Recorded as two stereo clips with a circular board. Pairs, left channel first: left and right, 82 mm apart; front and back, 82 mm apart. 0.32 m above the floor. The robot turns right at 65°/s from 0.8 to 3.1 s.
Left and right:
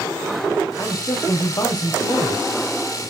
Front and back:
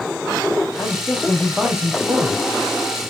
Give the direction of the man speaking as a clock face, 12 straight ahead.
10 o'clock.